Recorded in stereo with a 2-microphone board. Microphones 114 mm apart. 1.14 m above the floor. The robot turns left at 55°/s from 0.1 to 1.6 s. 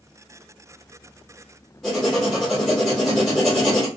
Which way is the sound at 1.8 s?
5° left (ahead or behind).